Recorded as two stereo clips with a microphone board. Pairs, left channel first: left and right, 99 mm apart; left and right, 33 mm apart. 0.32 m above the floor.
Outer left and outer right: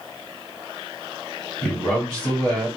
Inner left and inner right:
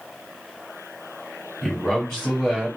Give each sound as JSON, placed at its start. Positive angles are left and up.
{"t": 1.6, "sound": "a man speaking", "side_deg": 10, "distance_m": 1.6}